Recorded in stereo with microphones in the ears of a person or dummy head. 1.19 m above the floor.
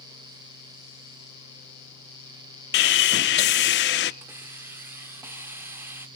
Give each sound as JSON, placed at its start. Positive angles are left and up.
{"t": 2.7, "sound": "sawing", "side_deg": 50, "distance_m": 0.6}
{"t": 4.2, "sound": "a hiss", "side_deg": -20, "distance_m": 1.3}